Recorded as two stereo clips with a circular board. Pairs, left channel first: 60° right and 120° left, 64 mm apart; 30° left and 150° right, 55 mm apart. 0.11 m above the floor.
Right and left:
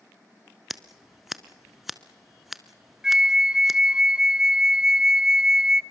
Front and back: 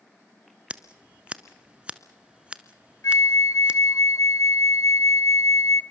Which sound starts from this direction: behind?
Scissors, at 0.7 s.